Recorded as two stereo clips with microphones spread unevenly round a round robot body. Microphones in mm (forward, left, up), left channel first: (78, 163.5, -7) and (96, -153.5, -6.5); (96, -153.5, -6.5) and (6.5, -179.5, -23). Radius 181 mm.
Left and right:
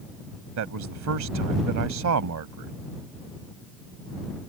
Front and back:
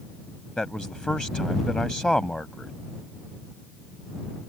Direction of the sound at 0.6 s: 65° right.